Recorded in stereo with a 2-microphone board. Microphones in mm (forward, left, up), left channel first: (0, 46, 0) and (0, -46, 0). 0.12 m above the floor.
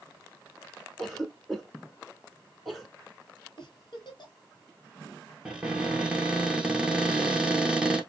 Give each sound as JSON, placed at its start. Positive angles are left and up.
{"t": 1.0, "sound": "a cough", "side_deg": 0, "distance_m": 1.1}
{"t": 3.6, "sound": "a giggle", "side_deg": 55, "distance_m": 1.1}
{"t": 5.5, "sound": "a cupboard door", "side_deg": -10, "distance_m": 0.9}